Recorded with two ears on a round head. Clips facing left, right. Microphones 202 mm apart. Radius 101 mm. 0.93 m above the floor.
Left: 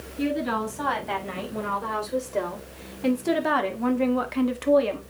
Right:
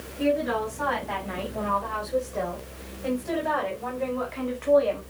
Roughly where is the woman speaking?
Left.